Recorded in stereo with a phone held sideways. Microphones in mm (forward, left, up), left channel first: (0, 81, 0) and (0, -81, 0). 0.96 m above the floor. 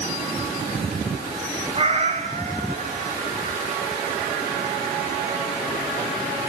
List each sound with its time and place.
1.8 s a cat meowing: 40° right (ahead or behind), 2 m; by 3.2 s 45° right (ahead or behind), 3.5 m